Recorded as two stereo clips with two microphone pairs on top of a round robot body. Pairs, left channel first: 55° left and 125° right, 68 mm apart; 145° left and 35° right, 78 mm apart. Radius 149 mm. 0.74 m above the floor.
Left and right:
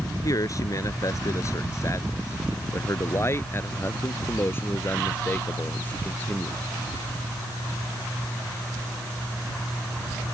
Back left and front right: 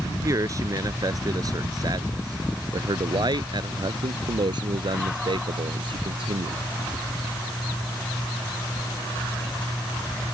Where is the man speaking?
15° left; by 6.6 s 10° right.